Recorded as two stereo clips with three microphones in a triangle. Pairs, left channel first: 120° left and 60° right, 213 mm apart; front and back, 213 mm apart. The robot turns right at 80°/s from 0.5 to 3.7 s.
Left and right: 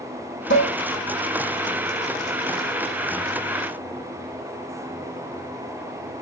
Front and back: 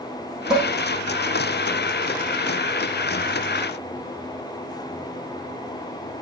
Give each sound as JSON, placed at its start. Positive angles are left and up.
{"t": 0.5, "sound": "dishes clattering", "azimuth_deg": 95, "distance_m": 6.0}